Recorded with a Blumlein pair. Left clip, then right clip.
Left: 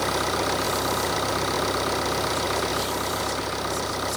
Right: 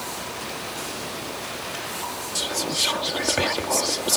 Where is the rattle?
No rattle in this recording.